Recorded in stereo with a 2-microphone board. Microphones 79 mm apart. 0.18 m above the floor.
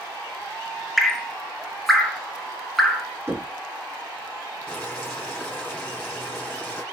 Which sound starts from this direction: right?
Knocking, at 3.3 s.